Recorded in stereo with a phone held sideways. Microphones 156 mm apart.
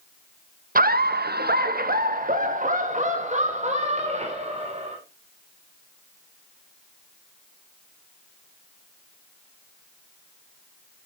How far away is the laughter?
About 0.9 m.